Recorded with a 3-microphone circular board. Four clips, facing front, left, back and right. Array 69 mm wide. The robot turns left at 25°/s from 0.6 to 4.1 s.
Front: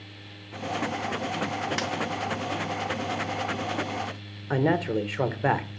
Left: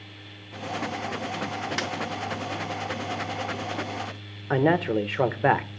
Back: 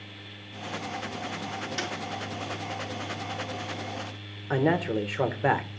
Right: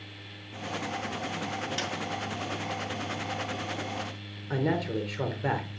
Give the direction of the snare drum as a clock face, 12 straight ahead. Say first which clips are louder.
Left 4 dB, front 3 dB; 10 o'clock.